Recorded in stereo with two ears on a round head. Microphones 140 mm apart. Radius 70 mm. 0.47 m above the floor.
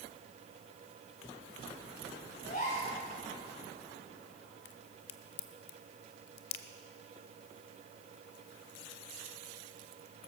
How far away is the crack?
About 0.9 m.